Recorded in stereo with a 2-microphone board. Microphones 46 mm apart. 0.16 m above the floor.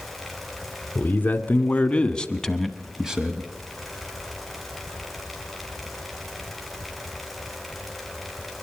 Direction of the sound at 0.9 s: 40° left (ahead or behind).